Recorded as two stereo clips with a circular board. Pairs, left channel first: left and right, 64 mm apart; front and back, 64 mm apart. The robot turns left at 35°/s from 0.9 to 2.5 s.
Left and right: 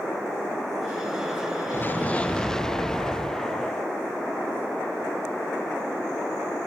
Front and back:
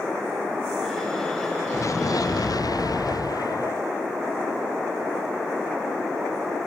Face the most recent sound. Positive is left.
turn(degrees=10)